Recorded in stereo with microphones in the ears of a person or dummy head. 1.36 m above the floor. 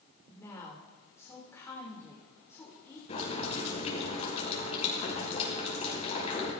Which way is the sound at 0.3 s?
15° left (ahead or behind).